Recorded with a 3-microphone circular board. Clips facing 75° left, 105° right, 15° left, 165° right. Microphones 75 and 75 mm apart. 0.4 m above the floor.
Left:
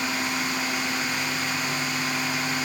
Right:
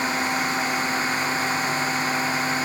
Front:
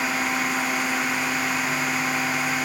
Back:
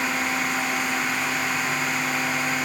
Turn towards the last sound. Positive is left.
No sound to turn to.